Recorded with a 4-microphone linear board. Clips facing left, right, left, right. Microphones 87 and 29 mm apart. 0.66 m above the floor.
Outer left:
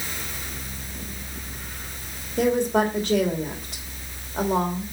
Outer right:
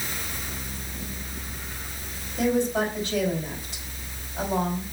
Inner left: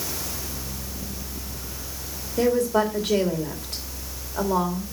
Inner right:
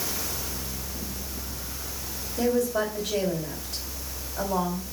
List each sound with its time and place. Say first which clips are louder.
2.4 s a woman speaking: outer left 3 dB, inner left 4 dB; 65° left (ahead or behind), 3 m